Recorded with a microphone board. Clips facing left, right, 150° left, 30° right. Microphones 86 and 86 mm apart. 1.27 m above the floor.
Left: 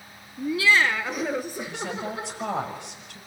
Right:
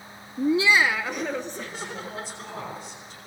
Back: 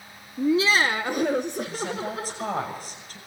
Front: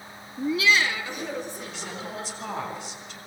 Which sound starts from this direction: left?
A woman speaking, at 1.7 s.